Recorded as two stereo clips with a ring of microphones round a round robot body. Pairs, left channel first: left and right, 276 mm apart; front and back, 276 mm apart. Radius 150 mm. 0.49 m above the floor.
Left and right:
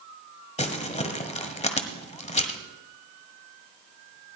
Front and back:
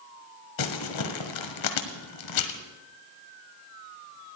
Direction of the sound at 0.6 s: 25° left.